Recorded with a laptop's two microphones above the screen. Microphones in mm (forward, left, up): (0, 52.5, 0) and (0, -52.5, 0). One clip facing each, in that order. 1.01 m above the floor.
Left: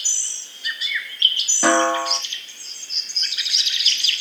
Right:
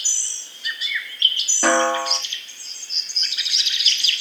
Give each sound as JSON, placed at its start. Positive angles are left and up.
{"t": 1.6, "sound": "a snare drum", "side_deg": 0, "distance_m": 1.9}